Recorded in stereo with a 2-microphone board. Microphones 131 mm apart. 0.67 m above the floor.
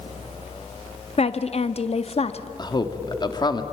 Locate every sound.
1.2 s a woman speaking: 50° left (ahead or behind), 0.8 m
2.6 s a man speaking: 30° left (ahead or behind), 1.7 m